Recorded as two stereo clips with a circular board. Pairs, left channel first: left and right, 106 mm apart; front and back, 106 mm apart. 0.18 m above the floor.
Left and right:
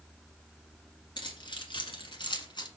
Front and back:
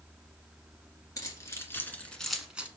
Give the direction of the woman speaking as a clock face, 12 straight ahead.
I don't hear a woman speaking.